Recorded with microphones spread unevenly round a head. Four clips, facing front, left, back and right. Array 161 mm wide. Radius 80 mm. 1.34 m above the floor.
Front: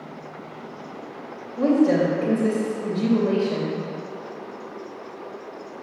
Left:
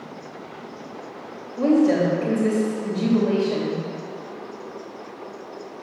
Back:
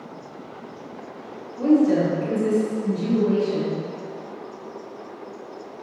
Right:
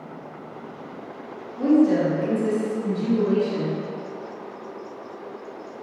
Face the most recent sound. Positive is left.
turn(degrees=30)